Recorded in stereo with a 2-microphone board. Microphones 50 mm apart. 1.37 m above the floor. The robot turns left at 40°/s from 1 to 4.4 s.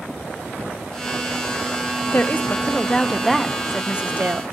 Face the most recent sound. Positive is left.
turn(degrees=-45)